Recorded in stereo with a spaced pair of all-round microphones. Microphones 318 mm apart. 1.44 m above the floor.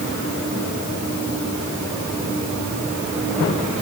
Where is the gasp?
No gasp in this recording.